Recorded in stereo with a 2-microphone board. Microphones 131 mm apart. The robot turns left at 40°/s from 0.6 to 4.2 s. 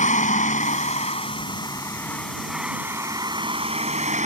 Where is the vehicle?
75° left; by 4.3 s 70° right.